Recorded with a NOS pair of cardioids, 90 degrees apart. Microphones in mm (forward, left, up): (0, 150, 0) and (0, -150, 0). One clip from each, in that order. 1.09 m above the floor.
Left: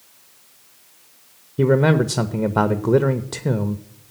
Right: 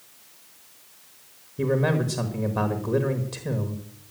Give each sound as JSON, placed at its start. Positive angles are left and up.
{"t": 1.6, "sound": "a man speaking", "azimuth_deg": 45, "distance_m": 1.1}